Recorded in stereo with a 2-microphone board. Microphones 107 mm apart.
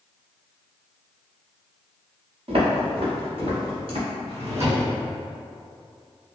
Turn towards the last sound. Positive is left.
turn(degrees=-80)